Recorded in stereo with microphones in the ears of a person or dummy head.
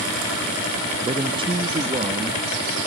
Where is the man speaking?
25° right (ahead or behind), 0.7 m.